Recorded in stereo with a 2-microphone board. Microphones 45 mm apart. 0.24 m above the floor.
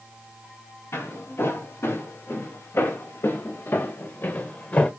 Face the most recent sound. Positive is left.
turn(degrees=35)  # may be behind; listen again after turning